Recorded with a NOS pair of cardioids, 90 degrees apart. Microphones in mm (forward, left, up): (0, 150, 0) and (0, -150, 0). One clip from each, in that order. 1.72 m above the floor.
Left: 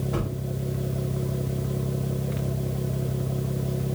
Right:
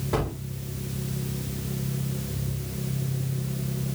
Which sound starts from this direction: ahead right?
A gunshot, at 0.1 s.